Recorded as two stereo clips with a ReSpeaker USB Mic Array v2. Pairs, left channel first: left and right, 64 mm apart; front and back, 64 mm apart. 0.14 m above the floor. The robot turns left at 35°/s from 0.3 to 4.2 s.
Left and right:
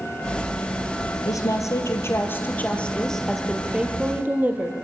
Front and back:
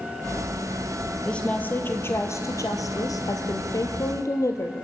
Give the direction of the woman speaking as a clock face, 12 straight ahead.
10 o'clock.